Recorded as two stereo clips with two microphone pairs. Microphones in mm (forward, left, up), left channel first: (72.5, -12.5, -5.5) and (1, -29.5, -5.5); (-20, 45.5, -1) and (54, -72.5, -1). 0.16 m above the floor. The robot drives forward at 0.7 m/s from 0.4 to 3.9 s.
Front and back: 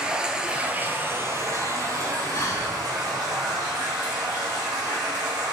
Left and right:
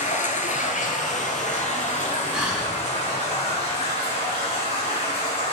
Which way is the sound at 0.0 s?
115° left.